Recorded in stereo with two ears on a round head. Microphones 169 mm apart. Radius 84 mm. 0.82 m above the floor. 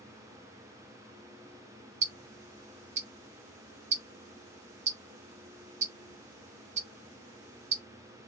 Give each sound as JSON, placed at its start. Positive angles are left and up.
{"t": 2.0, "sound": "ticking", "side_deg": -40, "distance_m": 0.8}